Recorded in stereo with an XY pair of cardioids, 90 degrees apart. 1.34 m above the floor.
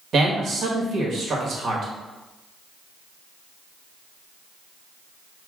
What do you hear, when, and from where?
0.1 s a man speaking: 65° right, 1.5 m